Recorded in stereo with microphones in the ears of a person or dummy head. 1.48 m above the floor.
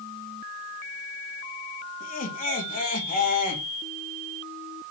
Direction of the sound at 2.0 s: 40° left (ahead or behind).